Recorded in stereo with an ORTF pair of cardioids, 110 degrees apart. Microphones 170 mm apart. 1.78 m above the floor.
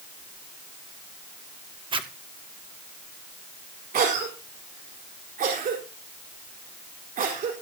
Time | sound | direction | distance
1.9 | a zipper | 30° right | 1.7 m
3.9 | a cough | 55° right | 4 m